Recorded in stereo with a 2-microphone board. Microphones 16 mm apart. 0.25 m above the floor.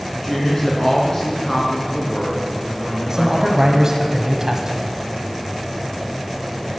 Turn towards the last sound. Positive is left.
turn(degrees=-35)  # may be behind; listen again after turning